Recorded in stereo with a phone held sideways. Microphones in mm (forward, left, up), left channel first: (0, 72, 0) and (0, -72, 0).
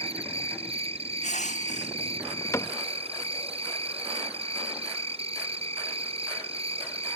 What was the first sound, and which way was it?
An insect, 50° right (ahead or behind).